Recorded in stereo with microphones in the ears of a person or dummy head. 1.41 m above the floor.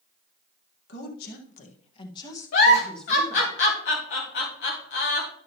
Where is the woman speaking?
70° left (ahead or behind), 1.5 m; by 3.5 s 10° right (ahead or behind), 2 m.